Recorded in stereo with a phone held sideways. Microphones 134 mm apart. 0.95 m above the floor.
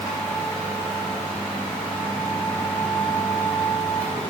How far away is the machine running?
About 3.5 m.